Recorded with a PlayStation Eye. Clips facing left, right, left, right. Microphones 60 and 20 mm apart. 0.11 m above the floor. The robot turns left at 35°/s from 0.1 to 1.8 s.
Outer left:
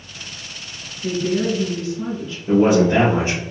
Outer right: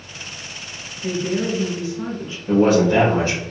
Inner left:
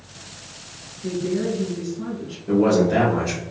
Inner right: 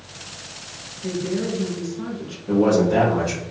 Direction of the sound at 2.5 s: 25° left (ahead or behind).